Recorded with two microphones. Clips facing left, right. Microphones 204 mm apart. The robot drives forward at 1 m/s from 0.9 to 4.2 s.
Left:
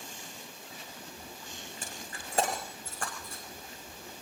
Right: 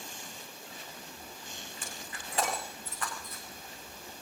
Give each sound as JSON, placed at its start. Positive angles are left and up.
{"t": 1.8, "sound": "breaking glass", "side_deg": 40, "distance_m": 9.5}